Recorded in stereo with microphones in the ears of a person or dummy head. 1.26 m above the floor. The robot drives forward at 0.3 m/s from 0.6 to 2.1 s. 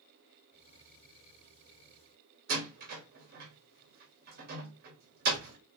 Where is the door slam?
55° right (ahead or behind), 1.3 m.